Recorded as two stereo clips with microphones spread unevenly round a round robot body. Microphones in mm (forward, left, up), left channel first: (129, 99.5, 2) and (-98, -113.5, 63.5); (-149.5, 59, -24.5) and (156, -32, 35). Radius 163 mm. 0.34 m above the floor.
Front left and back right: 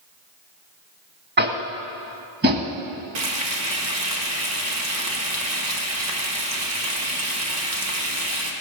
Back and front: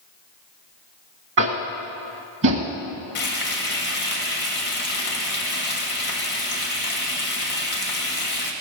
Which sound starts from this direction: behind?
Frying, at 3.1 s.